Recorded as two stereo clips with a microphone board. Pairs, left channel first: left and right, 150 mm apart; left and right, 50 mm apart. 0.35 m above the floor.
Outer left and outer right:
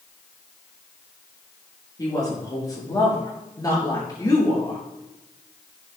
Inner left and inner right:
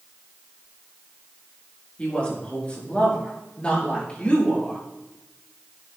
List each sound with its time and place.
2.0 s a woman speaking: 25° left (ahead or behind), 5.5 m